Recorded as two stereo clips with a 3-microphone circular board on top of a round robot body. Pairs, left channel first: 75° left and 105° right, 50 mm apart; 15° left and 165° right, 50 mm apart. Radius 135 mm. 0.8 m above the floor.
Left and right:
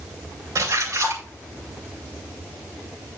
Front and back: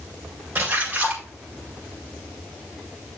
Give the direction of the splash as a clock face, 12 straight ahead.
4 o'clock.